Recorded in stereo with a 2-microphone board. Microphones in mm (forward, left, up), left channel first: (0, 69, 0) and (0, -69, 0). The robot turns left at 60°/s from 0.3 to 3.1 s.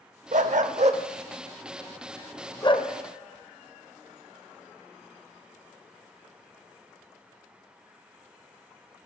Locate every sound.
0.3 s a dog barking: 65° right (ahead or behind), 0.5 m; by 2.9 s 45° left (ahead or behind), 0.5 m